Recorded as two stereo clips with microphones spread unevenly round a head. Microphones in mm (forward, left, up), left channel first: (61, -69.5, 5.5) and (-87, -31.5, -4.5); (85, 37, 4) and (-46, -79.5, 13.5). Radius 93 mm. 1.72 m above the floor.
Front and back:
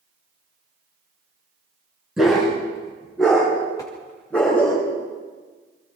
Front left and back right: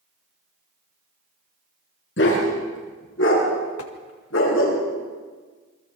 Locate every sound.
2.2 s a dog barking: 75° left, 9.5 m; by 4.8 s 65° left, 8.5 m
3.8 s tapping: 55° left, 2 m